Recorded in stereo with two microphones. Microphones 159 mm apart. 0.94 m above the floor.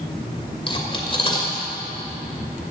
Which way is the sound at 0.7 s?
35° left (ahead or behind).